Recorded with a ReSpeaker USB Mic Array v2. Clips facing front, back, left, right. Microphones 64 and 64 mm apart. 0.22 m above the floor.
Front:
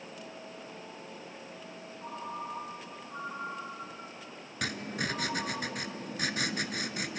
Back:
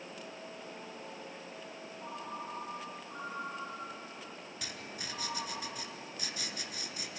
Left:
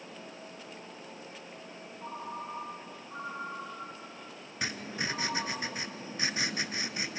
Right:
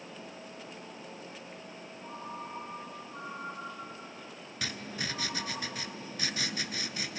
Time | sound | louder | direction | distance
2.0 | a ringtone | front 3 dB, left 3 dB | 90° left | 5.5 m
4.6 | writing | front 12 dB, left 3 dB | 25° left | 0.9 m